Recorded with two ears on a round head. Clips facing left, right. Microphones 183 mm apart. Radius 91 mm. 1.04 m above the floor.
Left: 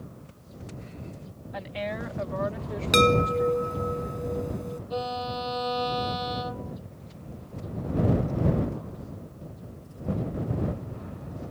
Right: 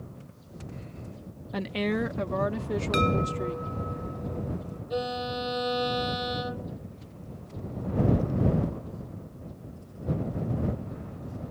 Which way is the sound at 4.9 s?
15° right (ahead or behind).